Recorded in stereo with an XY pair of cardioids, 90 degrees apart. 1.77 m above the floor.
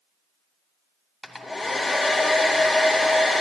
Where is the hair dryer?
20° left, 2.0 m.